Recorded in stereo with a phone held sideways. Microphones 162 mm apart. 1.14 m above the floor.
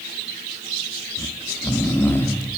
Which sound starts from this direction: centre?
Snoring, at 1.2 s.